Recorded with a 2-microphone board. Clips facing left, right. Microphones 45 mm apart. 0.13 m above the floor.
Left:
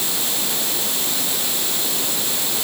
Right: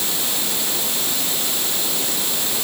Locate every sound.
Only background noise.